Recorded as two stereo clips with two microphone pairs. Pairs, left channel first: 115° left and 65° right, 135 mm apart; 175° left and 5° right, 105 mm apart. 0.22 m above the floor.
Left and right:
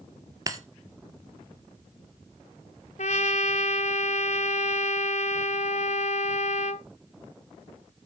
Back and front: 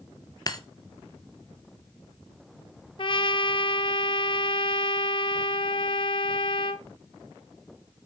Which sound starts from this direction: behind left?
A trumpet, at 3.0 s.